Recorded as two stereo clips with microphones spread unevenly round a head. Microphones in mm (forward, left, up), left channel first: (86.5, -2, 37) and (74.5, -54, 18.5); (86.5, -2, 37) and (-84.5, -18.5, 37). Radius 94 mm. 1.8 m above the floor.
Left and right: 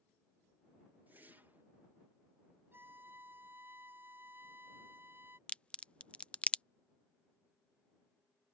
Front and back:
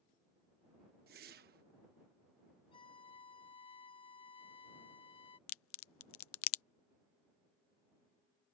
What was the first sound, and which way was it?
A whoosh, 175° left.